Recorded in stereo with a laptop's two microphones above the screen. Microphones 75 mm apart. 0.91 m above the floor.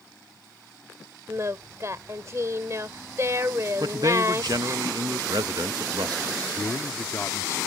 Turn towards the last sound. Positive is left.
turn(degrees=40)  # may be behind; listen again after turning